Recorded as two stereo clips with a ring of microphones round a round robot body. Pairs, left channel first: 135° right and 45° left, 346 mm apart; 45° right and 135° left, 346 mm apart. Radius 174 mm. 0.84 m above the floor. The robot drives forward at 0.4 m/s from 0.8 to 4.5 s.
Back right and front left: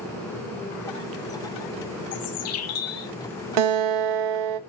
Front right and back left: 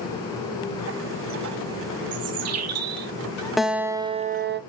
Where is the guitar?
45° left, 0.8 m; by 4.6 s 70° left, 0.6 m.